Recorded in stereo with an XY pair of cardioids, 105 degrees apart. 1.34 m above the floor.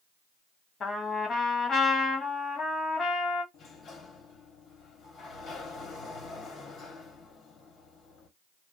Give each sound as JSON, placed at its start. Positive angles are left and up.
{"t": 0.8, "sound": "a trumpet", "azimuth_deg": 45, "distance_m": 1.3}
{"t": 3.5, "sound": "a sliding door", "azimuth_deg": 65, "distance_m": 1.1}